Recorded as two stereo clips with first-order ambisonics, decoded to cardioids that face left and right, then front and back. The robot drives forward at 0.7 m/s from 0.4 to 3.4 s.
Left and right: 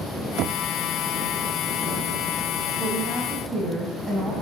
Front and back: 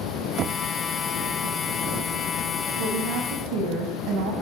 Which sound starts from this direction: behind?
A woman speaking, at 2.8 s.